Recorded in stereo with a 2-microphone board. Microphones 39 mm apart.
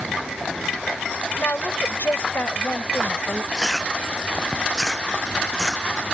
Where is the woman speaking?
70° left (ahead or behind); by 3.4 s 75° left (ahead or behind).